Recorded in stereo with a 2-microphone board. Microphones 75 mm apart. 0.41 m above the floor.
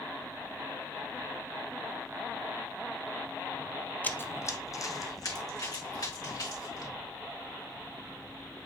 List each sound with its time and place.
4.0 s running footsteps: 25° left (ahead or behind), 0.5 m; by 6.9 s 60° left (ahead or behind), 3 m